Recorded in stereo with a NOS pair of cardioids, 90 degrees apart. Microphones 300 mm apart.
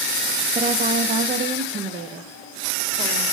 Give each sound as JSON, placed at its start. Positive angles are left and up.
{"t": 0.6, "sound": "a woman speaking", "azimuth_deg": -25, "distance_m": 0.9}